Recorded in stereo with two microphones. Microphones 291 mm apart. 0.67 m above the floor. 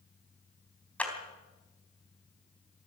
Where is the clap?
5° left (ahead or behind), 3.5 m.